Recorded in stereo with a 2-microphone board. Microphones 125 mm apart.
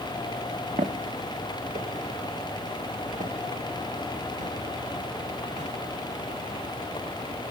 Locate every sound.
0.8 s footsteps: 75° right (ahead or behind), 1.1 m; by 5.7 s 85° right, 5 m